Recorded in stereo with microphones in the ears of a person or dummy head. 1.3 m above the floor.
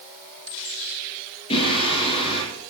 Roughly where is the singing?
Left.